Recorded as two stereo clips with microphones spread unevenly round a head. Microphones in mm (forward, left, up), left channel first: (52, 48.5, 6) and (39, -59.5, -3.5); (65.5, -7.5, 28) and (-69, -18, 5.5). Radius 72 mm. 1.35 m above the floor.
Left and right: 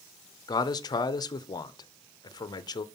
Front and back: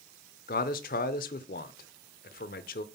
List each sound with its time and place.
0.5 s a man speaking: 30° left, 0.6 m